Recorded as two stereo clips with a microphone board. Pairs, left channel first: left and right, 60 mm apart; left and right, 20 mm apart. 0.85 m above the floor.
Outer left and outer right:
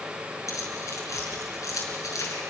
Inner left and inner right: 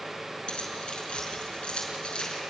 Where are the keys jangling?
60° left (ahead or behind), 6 m.